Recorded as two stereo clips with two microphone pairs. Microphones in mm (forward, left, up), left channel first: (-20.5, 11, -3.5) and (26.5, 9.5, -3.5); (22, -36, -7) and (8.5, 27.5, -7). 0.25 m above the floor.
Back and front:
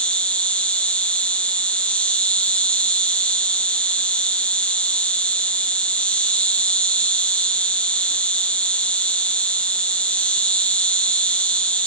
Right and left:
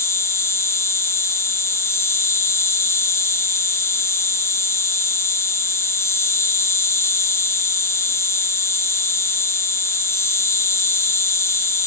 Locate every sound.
0.0 s an insect: 120° right, 1.0 m